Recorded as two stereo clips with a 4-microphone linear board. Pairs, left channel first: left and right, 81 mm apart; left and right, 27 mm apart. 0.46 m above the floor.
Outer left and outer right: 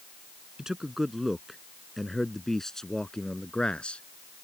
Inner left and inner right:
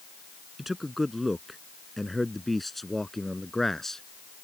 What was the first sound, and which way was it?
A man speaking, 5° right (ahead or behind).